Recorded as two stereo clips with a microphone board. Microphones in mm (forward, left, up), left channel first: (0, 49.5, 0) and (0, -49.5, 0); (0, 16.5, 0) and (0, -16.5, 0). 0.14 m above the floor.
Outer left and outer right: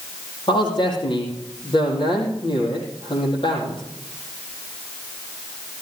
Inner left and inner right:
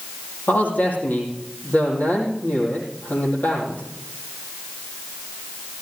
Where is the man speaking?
55° left (ahead or behind), 5.5 m.